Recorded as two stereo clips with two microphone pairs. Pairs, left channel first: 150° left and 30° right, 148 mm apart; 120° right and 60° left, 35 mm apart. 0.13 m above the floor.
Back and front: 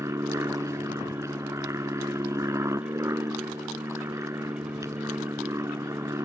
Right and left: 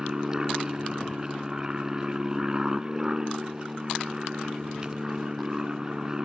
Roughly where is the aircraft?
Ahead.